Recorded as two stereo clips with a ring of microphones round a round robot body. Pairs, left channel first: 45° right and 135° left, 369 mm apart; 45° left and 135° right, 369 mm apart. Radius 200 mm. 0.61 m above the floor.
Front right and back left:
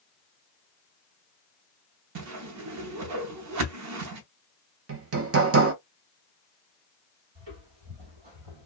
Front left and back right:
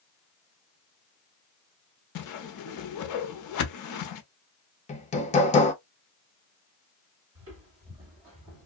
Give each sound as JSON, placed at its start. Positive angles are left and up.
{"t": 2.1, "sound": "a whoosh", "azimuth_deg": 85, "distance_m": 0.6}
{"t": 4.9, "sound": "hammering", "azimuth_deg": 105, "distance_m": 0.7}
{"t": 7.3, "sound": "footsteps", "azimuth_deg": 170, "distance_m": 1.6}